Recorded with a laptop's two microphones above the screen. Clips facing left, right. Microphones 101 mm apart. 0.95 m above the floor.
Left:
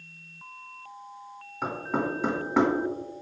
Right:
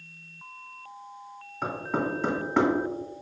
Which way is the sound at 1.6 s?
5° left (ahead or behind).